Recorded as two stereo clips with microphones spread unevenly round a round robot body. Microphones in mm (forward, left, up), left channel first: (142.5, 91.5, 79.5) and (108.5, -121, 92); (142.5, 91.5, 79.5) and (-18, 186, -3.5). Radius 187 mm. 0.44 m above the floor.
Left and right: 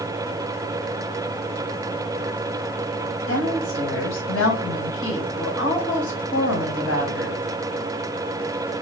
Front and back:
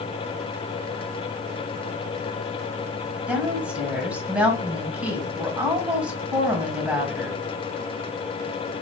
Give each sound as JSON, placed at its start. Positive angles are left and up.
{"t": 3.3, "sound": "a woman speaking", "azimuth_deg": 75, "distance_m": 2.5}